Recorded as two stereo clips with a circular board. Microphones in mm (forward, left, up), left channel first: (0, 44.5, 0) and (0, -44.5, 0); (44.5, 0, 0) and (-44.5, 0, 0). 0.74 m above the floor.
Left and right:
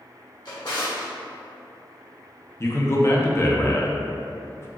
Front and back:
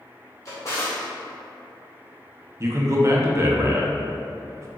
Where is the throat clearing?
I don't hear throat clearing.